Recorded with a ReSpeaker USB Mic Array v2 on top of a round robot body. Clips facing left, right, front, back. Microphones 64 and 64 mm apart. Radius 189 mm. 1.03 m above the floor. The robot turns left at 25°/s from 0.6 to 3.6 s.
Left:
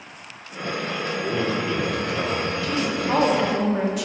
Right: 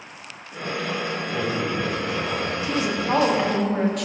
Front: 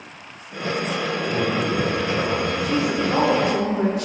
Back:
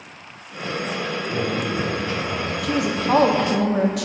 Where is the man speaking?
85° left, 3 m; by 2.5 s 50° left, 3 m.